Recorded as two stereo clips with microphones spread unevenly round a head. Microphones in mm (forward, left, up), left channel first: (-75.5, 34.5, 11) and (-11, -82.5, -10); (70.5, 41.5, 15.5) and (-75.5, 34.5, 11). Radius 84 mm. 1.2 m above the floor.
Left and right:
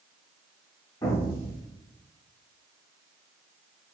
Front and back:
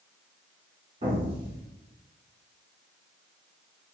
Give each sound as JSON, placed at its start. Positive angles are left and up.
{"t": 1.0, "sound": "an explosion", "azimuth_deg": 155, "distance_m": 1.2}